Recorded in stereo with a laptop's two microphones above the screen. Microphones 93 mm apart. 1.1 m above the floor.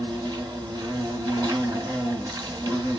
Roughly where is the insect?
Right.